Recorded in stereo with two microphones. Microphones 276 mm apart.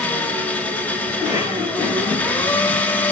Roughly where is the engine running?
Centre.